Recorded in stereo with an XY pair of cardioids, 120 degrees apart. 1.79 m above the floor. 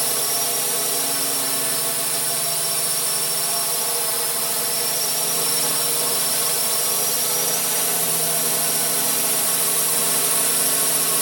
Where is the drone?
15° right.